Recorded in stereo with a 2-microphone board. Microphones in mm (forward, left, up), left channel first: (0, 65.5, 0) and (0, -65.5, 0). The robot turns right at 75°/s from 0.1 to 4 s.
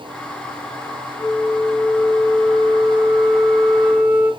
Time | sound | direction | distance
1.2 | a flute | 75° left | 1.1 m